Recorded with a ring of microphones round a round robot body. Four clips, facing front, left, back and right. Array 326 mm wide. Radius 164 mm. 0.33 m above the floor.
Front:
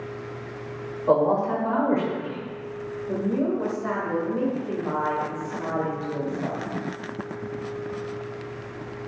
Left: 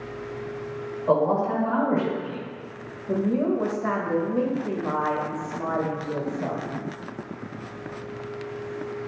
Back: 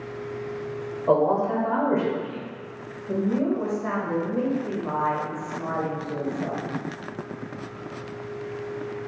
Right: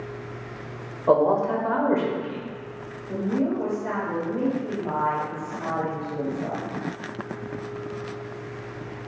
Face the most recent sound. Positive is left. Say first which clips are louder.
# left 2 dB, back 1 dB
turn(degrees=100)